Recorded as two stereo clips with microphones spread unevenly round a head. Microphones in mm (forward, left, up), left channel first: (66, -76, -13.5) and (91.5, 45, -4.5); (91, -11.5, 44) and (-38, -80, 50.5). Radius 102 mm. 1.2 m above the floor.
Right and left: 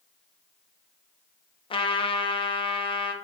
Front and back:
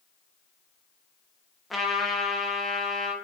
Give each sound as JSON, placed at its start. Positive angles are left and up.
{"t": 1.7, "sound": "a trumpet", "azimuth_deg": -65, "distance_m": 0.7}